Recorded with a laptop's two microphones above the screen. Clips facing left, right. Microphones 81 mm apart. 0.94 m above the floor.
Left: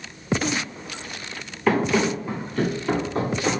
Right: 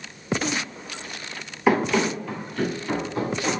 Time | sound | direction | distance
1.7 | running footsteps | 10° right (ahead or behind) | 0.9 m